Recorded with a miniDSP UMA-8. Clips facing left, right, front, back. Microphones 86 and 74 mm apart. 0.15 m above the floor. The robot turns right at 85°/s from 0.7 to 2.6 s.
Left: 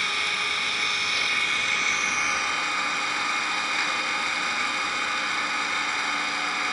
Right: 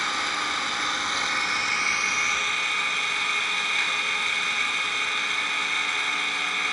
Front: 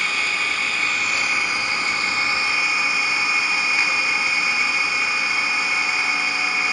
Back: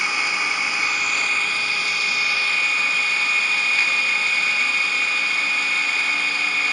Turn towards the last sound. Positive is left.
turn(degrees=40)